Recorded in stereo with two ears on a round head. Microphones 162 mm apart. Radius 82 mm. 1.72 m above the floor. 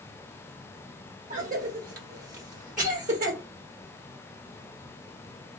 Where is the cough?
50° right (ahead or behind), 1.2 m.